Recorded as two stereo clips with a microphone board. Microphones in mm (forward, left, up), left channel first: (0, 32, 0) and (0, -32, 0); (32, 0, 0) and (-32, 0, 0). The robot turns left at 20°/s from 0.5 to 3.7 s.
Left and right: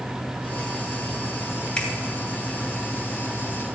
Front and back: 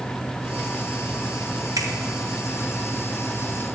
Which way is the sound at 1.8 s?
165° left.